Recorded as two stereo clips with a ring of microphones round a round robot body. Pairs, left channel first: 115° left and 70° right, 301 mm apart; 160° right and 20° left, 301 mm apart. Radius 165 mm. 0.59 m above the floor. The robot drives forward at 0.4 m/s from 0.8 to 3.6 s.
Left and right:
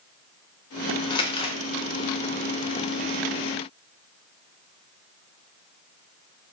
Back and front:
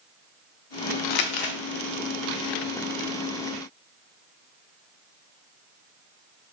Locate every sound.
1.1 s crumpling: 170° right, 0.6 m; by 1.6 s 175° right, 0.8 m